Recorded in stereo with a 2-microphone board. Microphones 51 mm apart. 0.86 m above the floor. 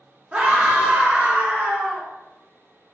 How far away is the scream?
About 0.6 m.